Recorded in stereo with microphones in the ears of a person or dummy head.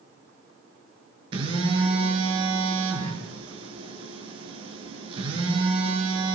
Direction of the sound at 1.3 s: 30° right (ahead or behind).